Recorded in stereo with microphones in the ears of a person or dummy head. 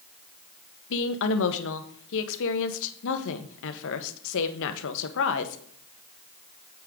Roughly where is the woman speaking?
Left.